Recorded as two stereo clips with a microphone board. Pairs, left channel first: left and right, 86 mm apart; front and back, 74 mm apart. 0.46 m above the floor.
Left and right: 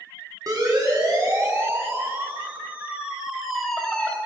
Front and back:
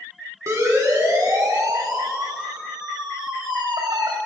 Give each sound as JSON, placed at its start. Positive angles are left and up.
{"t": 0.5, "sound": "a siren", "azimuth_deg": -135, "distance_m": 4.5}